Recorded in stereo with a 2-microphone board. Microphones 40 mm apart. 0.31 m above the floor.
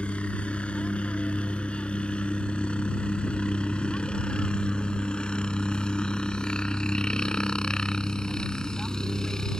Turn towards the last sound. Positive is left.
turn(degrees=15)  # may be behind; listen again after turning